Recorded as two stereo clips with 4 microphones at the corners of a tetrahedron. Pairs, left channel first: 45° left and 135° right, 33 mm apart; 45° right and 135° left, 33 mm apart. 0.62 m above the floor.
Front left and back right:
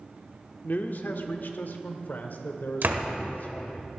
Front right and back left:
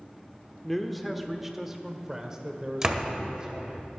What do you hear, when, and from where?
0.6 s a man speaking: 40° left, 1.2 m; by 3.8 s 75° left, 2.5 m
2.8 s a door slam: 155° right, 1.5 m